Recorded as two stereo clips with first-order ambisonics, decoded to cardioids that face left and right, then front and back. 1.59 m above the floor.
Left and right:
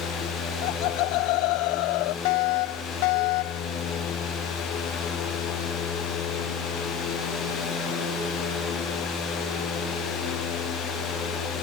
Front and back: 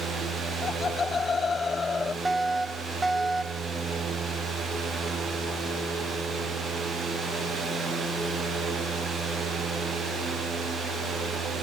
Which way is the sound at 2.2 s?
95° left.